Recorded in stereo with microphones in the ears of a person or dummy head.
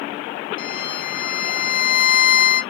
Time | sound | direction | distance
0.6 | a violin | 25° left (ahead or behind) | 1.3 m